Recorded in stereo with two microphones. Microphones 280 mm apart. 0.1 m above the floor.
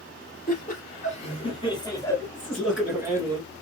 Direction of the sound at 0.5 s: 35° left (ahead or behind).